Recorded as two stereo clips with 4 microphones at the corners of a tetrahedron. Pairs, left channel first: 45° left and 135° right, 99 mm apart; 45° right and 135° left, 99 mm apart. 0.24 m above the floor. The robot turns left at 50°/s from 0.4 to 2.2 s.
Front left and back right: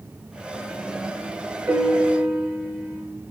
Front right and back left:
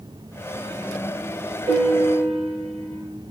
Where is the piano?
160° left, 6 m; by 3.0 s 135° left, 6 m.